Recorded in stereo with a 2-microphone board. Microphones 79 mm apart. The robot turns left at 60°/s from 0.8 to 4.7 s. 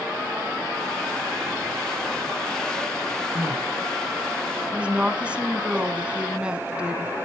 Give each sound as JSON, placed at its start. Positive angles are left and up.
{"t": 3.4, "sound": "crying", "side_deg": -45, "distance_m": 4.5}
{"t": 4.7, "sound": "a woman speaking", "side_deg": -15, "distance_m": 1.3}